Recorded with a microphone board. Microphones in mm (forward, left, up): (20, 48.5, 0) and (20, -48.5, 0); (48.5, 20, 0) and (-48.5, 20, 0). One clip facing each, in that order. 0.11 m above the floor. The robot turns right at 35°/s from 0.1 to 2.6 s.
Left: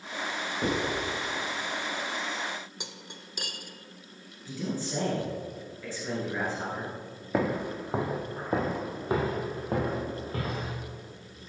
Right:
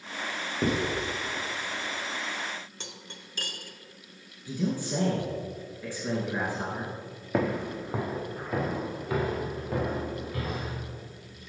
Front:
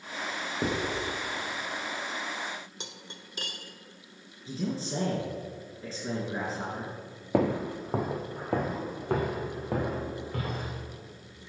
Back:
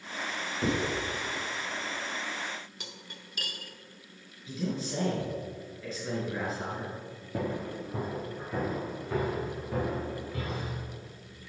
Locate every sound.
0.6 s writing: 30° right, 3 m; by 0.8 s 20° right, 3 m
2.8 s cutlery clinking: 30° left, 0.7 m
4.5 s a man speaking: 25° right, 1.9 m
7.3 s footsteps: straight ahead, 0.8 m; by 10.8 s 40° left, 3.5 m